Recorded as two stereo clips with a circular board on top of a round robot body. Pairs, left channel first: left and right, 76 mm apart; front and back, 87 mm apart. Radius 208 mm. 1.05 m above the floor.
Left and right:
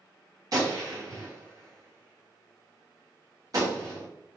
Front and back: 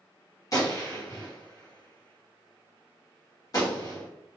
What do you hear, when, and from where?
0.5 s a gunshot: 50° right, 1.9 m